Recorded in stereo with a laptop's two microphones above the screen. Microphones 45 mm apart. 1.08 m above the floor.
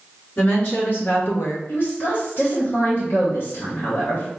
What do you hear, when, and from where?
0.4 s a woman speaking: 45° left (ahead or behind), 2 m; by 1.6 s 55° left (ahead or behind), 0.9 m
1.7 s a woman speaking: 55° left (ahead or behind), 1.1 m